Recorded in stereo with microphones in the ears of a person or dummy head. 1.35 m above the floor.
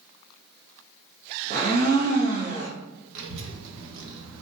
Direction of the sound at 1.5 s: 40° right (ahead or behind).